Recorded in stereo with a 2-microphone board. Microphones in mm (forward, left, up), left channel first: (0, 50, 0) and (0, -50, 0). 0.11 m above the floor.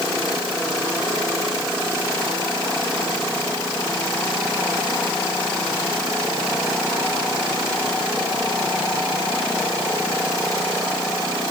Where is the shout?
I don't hear a shout.